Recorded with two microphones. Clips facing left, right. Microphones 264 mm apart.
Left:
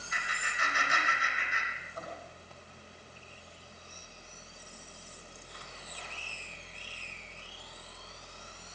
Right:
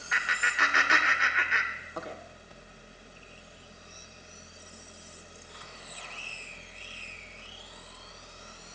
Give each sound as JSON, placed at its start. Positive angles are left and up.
{"t": 0.1, "sound": "laughter", "side_deg": -70, "distance_m": 1.5}